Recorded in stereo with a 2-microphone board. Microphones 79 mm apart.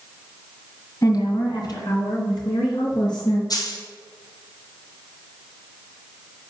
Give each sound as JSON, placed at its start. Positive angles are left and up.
{"t": 1.0, "sound": "a woman speaking", "side_deg": 50, "distance_m": 2.0}
{"t": 3.5, "sound": "a dropped coin", "side_deg": 55, "distance_m": 2.0}